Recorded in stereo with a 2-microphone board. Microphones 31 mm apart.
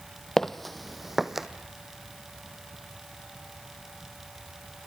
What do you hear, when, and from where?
0.4 s footsteps: 10° left (ahead or behind), 1.0 m; by 1.5 s 15° right (ahead or behind), 1.4 m